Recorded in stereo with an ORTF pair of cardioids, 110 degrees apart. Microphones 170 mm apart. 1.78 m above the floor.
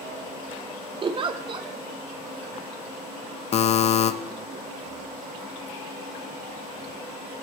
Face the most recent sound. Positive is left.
turn(degrees=40)